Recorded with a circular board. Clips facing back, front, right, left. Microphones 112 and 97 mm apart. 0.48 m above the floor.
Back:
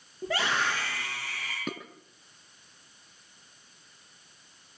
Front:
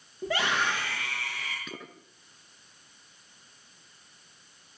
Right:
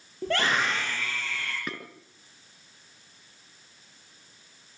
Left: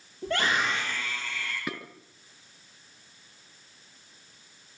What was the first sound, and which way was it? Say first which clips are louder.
A scream: front 1 dB, right 1 dB; 90° right.